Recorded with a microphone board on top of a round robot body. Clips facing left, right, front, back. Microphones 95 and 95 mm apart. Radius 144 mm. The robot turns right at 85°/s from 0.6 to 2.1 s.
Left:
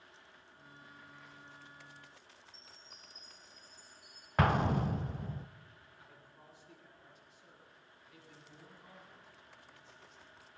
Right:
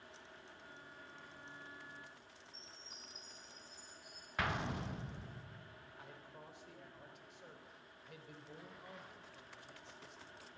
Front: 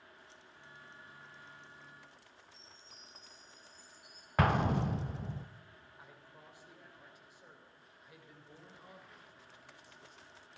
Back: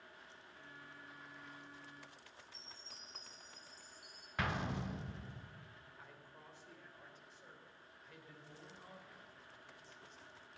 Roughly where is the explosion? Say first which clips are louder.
Left 10 dB, front 10 dB; ahead left.